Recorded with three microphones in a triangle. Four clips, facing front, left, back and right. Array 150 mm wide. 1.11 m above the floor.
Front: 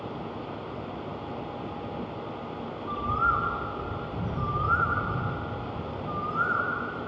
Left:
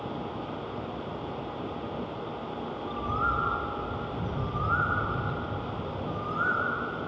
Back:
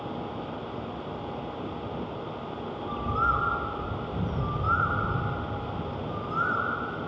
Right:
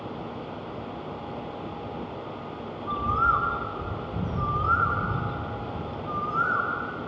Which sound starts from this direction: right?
A bird, at 2.9 s.